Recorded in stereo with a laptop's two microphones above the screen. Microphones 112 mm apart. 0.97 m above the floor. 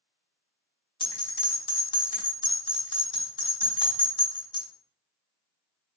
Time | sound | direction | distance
1.0 | a bell | 45° left (ahead or behind) | 1.3 m